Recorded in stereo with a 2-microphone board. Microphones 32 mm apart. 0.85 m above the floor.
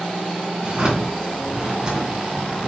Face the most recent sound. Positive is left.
turn(degrees=-25)  # may be behind; listen again after turning